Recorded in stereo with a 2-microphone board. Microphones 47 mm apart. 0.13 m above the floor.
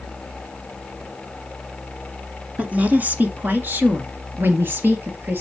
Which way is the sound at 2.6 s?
30° right (ahead or behind).